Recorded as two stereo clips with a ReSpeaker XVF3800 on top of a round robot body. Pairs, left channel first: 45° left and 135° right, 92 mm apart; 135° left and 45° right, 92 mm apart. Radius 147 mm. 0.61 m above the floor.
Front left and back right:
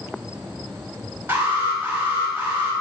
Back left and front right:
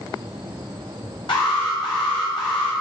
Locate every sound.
1.3 s an alarm: 160° left, 3 m